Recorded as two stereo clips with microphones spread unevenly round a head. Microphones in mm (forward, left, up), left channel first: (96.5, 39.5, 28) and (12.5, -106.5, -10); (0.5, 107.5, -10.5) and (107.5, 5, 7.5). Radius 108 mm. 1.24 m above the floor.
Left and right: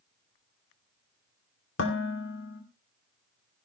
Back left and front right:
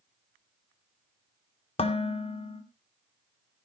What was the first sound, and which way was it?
Dishes clattering, 85° left.